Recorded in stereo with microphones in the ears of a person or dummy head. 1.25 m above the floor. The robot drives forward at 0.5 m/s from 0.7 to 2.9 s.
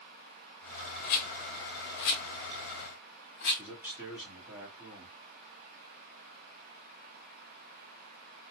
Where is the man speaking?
10° right (ahead or behind), 2 m.